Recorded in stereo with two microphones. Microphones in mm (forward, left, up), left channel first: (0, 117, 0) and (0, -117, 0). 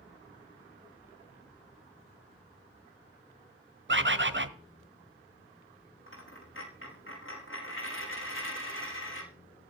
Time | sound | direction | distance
3.9 | a bird | 55° right (ahead or behind) | 1.0 m
6.1 | a dropped coin | 60° left (ahead or behind) | 5 m